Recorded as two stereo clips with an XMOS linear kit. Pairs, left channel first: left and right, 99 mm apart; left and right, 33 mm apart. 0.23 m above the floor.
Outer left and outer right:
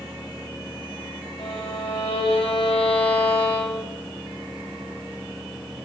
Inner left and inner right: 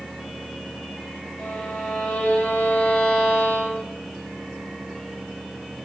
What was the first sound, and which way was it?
A violin, 70° left (ahead or behind).